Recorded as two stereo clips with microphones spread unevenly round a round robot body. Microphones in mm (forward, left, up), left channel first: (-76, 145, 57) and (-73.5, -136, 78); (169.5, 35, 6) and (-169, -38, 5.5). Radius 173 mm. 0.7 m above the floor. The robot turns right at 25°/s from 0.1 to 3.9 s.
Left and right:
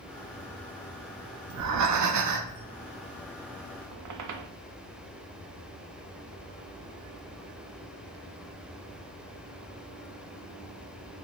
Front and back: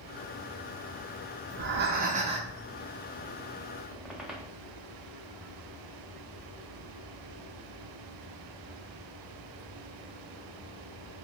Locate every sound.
1.5 s breathing: 115° right, 0.6 m; by 2.6 s 90° right, 0.6 m
3.9 s a squeak: 80° right, 0.5 m